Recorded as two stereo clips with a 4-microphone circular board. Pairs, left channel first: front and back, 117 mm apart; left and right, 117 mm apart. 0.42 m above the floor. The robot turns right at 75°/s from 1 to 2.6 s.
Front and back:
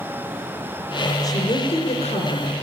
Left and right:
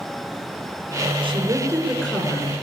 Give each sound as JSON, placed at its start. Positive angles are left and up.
{"t": 1.2, "sound": "a woman speaking", "azimuth_deg": -55, "distance_m": 5.5}